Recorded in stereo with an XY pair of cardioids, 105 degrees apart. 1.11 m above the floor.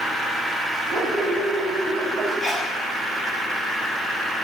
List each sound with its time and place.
0.9 s a dog barking: 20° right, 3 m; by 2.3 s 50° right, 2.5 m
2.4 s a sneeze: 20° left, 6.5 m